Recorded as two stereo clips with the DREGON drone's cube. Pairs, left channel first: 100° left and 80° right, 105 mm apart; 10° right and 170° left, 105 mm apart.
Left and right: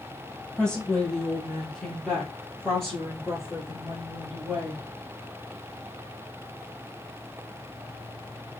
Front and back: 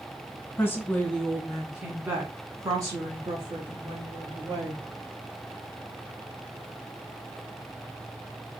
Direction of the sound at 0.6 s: 25° left.